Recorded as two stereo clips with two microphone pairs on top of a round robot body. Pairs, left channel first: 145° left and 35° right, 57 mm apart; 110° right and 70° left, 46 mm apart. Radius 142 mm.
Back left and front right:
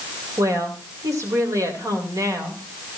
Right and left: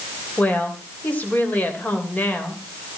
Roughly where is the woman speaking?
Ahead right.